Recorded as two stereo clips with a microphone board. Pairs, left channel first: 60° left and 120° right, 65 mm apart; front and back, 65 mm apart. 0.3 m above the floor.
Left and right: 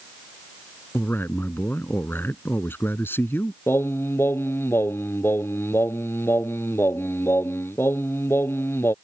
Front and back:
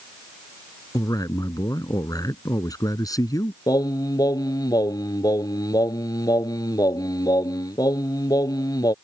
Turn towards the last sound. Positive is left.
turn(degrees=10)